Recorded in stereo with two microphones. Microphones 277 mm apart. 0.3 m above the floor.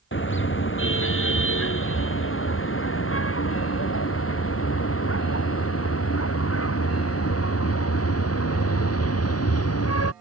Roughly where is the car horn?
Left.